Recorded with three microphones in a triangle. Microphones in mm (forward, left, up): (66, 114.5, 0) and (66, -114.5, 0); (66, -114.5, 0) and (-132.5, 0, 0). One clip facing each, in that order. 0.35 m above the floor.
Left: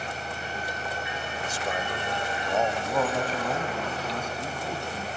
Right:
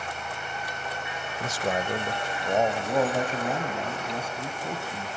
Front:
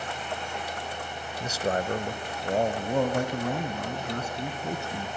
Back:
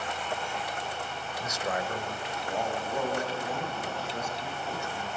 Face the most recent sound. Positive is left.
turn(degrees=-5)